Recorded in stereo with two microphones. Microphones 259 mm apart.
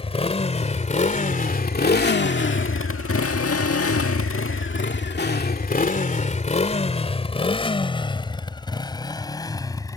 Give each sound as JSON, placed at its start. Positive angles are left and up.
{"t": 0.0, "sound": "a motorcycle", "side_deg": 20}